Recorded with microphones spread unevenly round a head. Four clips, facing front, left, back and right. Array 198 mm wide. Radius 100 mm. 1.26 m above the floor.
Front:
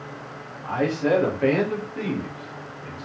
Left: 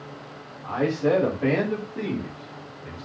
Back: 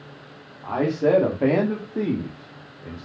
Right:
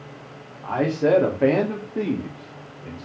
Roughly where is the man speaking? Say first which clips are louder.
Right 2 dB, back 2 dB; behind right.